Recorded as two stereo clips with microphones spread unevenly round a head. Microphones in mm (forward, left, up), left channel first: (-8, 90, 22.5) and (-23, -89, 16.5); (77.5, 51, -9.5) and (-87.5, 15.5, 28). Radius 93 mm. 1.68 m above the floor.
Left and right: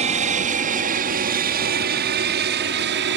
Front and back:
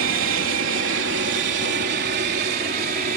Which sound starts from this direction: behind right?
An aircraft, at 0.0 s.